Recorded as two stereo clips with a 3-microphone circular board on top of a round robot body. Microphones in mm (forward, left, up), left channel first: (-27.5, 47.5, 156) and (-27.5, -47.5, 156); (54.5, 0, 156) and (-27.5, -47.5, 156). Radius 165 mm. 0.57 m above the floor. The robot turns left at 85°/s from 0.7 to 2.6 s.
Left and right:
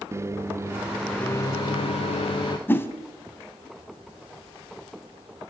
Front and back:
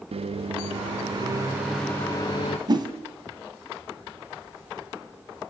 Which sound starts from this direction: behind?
A whoosh, at 2.7 s.